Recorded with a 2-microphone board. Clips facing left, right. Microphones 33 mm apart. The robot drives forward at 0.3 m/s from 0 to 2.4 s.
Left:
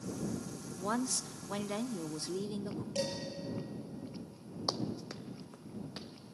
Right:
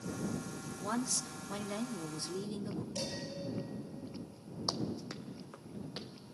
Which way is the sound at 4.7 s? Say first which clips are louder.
Left 1 dB; 25° left (ahead or behind).